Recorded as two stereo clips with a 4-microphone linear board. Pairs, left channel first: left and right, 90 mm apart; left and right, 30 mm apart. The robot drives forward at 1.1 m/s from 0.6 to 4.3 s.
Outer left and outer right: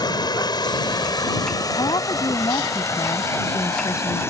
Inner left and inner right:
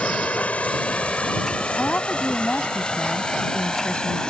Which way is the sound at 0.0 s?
50° left (ahead or behind).